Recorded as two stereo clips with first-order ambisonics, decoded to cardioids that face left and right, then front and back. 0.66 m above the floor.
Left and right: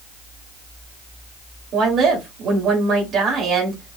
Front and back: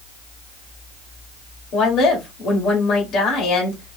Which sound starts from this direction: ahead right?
A woman speaking, at 1.7 s.